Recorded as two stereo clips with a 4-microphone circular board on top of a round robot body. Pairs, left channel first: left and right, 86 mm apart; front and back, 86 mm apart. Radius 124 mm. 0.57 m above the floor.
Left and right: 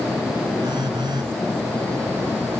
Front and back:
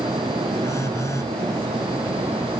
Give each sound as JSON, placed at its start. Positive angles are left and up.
{"t": 0.6, "sound": "a phone buzzing", "azimuth_deg": -55}